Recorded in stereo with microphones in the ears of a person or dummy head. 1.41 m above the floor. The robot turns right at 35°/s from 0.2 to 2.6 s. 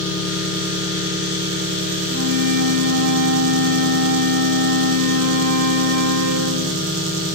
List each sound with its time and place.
0.0 s an engine running: 175° left, 1.1 m; by 7.3 s 100° right, 1.1 m
2.1 s a flute: 60° right (ahead or behind), 1.8 m; by 6.9 s 70° right (ahead or behind), 1.8 m